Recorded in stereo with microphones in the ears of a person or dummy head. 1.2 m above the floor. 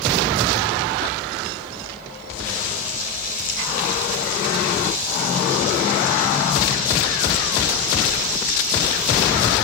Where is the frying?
50° left (ahead or behind), 6.5 m.